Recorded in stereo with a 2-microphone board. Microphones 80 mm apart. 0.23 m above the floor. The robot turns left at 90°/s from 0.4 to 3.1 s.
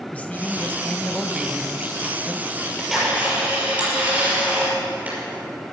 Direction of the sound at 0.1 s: 20° left (ahead or behind).